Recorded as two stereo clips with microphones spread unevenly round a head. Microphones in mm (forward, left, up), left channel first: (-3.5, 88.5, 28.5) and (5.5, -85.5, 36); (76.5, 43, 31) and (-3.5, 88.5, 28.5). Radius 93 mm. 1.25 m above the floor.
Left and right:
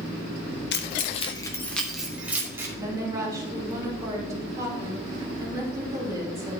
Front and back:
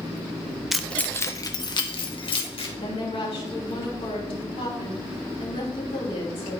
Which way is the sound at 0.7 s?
60° left.